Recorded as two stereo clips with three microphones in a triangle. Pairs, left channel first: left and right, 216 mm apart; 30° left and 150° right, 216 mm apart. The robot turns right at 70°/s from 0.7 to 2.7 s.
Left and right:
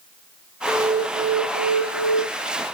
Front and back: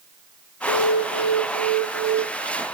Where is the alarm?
120° left, 2.5 m; by 2.2 s 135° right, 2.5 m.